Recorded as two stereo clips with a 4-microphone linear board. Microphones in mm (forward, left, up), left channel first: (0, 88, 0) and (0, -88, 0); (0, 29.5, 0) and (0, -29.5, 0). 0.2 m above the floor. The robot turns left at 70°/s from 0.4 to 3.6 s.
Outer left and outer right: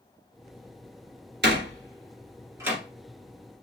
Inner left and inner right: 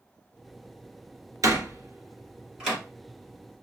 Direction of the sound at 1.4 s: 65° right (ahead or behind).